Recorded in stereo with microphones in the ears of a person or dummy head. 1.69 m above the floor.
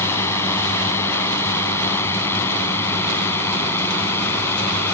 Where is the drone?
15° left (ahead or behind).